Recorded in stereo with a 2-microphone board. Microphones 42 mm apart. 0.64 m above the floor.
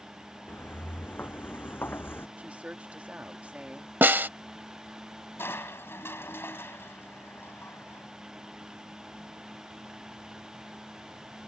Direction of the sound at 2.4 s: 35° right (ahead or behind).